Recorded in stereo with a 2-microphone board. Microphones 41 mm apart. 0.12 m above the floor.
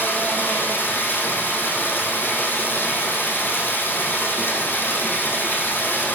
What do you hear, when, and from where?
0.0 s running water: 50° left (ahead or behind), 4 m